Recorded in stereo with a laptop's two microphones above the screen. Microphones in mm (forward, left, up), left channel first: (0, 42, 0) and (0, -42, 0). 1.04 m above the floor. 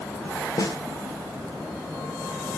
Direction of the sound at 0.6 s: 55° left (ahead or behind).